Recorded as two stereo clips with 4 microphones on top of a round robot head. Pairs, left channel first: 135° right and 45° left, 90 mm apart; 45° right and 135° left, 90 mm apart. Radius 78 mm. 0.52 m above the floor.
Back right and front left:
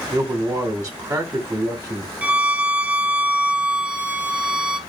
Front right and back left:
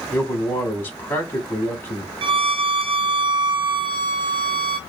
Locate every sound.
0.1 s a man speaking: straight ahead, 1.1 m
2.2 s a violin: 120° left, 0.5 m